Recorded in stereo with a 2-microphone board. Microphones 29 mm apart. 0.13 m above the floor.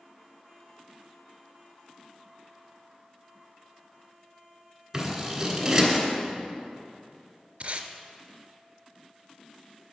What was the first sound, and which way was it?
Scissors, 15° right (ahead or behind).